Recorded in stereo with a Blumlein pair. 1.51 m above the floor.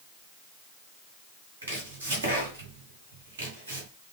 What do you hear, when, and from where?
1.6 s chopping: 65° right, 1.6 m